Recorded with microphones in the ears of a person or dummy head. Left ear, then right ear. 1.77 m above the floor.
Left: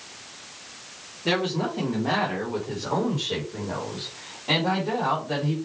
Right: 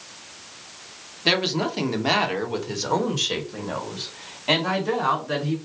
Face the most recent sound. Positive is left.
turn(degrees=-55)  # may be behind; listen again after turning